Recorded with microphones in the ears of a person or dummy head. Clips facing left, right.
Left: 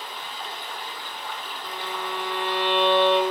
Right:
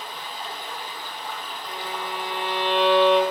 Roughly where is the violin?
Centre.